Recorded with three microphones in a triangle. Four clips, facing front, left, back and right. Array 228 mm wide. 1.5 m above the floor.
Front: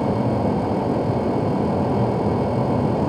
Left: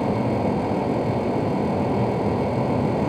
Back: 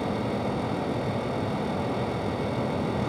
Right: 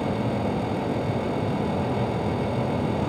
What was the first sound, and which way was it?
Only background noise.